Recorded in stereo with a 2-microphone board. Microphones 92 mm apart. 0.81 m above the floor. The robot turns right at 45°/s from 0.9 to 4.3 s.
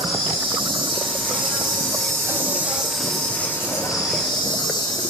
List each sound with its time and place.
0.0 s an insect: 95° right, 6.5 m; by 5.1 s 60° left, 6.5 m